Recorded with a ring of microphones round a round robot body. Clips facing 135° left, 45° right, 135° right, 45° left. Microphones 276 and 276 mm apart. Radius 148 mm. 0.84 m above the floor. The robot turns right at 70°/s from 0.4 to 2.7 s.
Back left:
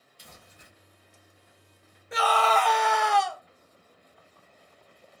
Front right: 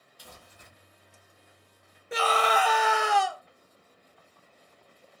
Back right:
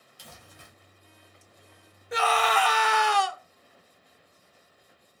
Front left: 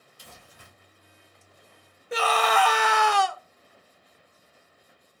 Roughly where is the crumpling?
Behind.